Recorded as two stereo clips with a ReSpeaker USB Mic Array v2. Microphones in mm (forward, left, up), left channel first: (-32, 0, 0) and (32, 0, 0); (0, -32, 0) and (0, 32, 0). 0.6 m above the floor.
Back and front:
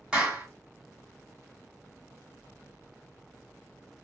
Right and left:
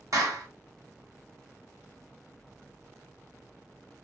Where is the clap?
75° left, 1.3 m.